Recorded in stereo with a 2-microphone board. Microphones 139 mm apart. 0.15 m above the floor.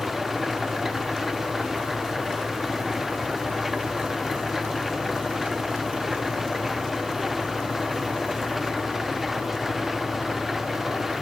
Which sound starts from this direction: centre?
An engine running, at 0.0 s.